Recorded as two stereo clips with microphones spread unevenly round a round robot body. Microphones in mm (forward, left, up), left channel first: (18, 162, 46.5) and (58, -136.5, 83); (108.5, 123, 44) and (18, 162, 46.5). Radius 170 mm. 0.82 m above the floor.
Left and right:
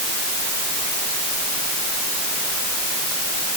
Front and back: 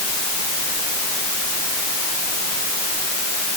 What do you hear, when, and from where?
Only background noise.